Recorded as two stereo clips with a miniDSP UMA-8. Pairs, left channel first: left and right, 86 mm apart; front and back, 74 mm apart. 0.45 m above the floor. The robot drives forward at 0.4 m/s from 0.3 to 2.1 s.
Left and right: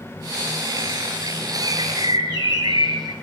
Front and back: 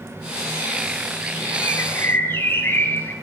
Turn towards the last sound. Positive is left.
turn(degrees=-60)